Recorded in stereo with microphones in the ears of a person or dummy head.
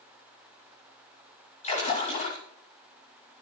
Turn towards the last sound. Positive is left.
turn(degrees=40)  # may be behind; listen again after turning